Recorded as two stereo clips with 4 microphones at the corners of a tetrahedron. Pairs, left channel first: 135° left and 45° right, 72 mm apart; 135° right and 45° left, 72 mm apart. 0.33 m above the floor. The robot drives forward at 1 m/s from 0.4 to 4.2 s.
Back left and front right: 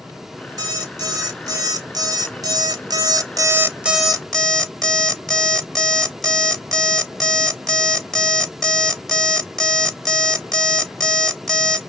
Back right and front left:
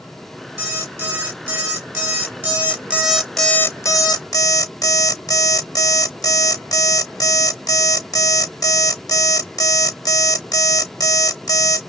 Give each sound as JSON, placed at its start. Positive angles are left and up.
{"t": 0.6, "sound": "an alarm clock", "azimuth_deg": -5, "distance_m": 3.0}